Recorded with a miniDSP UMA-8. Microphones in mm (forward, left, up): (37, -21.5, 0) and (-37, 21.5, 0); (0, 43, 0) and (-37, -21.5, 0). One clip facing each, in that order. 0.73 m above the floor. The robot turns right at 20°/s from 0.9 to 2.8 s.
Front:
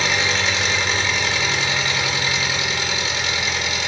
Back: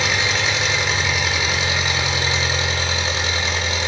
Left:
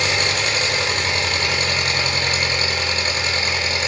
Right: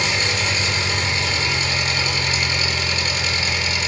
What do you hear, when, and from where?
0.0 s an engine running: 65° left, 0.9 m; by 3.9 s 100° left, 0.9 m